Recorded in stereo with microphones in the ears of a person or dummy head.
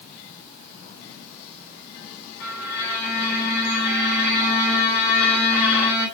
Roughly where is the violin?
Left.